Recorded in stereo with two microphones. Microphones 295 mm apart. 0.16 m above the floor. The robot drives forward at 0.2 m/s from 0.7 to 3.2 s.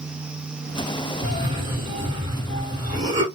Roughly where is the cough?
Centre.